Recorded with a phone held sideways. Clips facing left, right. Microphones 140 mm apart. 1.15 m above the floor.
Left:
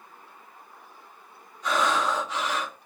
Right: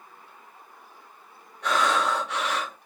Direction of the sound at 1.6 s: 70° right (ahead or behind).